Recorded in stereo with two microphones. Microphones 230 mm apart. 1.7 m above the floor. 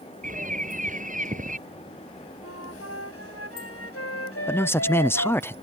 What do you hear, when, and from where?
0.2 s a bird: 35° right (ahead or behind)
2.4 s a flute: 90° left
4.5 s a man speaking: 10° left (ahead or behind)